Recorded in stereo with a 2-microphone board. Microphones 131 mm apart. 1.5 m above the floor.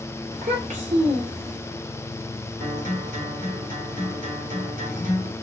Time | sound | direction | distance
0.3 | a child speaking | 65° right (ahead or behind) | 3 m
2.6 | a guitar | 75° right (ahead or behind) | 3 m